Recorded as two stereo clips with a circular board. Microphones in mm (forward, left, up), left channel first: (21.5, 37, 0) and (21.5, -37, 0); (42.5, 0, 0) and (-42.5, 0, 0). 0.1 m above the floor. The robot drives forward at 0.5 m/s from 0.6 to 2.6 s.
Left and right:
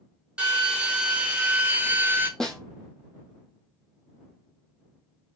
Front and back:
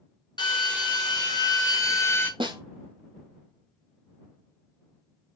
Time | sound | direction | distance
0.4 | a drill | 15° right | 1.2 m
2.4 | a snare drum | 175° left | 0.6 m